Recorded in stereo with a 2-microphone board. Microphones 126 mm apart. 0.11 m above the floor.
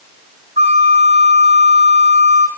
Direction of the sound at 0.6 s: 60° right (ahead or behind).